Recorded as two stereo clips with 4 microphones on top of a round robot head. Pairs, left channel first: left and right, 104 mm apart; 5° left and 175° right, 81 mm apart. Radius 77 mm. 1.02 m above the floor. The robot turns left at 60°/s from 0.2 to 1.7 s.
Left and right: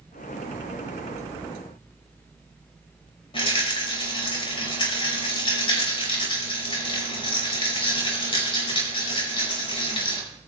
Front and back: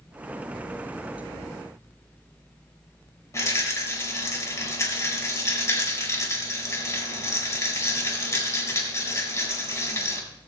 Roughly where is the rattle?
Ahead left.